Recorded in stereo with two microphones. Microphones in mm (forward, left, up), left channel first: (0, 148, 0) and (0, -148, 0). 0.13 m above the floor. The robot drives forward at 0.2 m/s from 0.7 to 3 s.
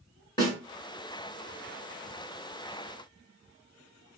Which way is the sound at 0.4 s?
15° left (ahead or behind).